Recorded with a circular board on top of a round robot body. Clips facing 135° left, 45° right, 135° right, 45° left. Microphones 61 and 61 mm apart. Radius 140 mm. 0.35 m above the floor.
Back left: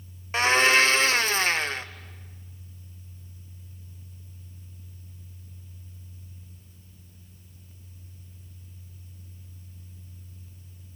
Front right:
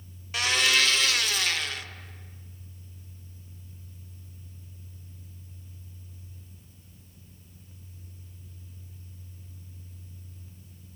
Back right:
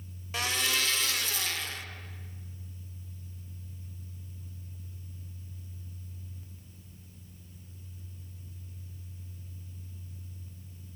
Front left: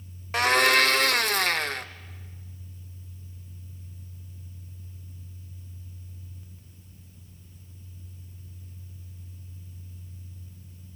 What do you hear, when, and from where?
0.3 s a blender: 80° left, 0.7 m